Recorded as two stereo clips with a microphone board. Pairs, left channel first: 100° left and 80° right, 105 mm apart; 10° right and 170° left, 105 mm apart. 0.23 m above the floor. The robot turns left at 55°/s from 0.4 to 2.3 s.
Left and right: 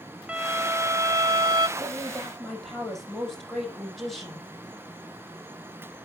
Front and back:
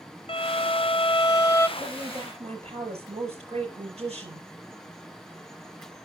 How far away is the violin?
About 0.6 m.